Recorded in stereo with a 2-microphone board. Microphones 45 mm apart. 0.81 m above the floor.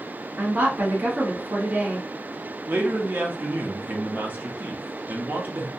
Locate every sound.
0.4 s a woman speaking: 40° right (ahead or behind), 1.2 m
2.7 s a man speaking: 40° right (ahead or behind), 0.6 m